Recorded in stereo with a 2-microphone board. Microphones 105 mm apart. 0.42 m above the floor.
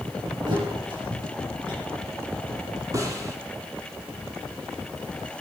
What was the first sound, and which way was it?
A thud, 50° right (ahead or behind).